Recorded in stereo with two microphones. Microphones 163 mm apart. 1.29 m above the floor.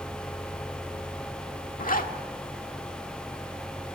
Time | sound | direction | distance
1.8 | a zipper | 60° left (ahead or behind) | 1.7 m